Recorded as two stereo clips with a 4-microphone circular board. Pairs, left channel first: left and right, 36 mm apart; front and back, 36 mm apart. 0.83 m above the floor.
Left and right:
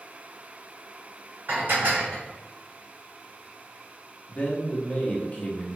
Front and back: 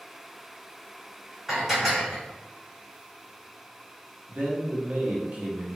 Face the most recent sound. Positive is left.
turn(degrees=135)